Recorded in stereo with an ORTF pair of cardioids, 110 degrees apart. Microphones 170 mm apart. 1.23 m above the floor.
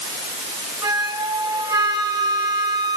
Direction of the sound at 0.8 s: 25° right.